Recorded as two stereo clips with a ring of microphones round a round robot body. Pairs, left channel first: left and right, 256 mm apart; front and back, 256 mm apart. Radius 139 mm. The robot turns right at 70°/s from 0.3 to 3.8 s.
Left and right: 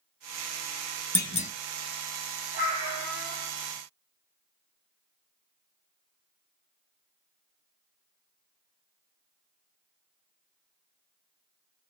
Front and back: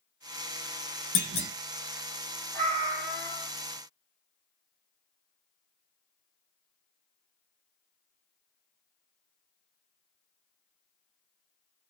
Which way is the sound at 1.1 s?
10° left.